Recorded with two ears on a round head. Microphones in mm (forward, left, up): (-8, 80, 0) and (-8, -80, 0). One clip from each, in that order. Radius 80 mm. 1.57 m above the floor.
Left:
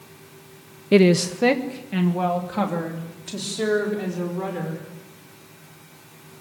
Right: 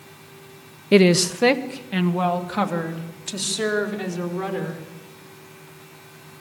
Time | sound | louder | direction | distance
0.9 | a woman speaking | right 1 dB | 15° right (ahead or behind) | 0.7 m